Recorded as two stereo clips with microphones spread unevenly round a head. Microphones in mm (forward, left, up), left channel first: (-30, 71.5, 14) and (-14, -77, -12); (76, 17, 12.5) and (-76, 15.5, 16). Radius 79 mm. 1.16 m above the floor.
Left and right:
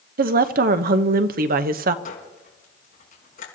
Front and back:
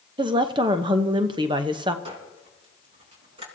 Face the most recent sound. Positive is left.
turn(degrees=130)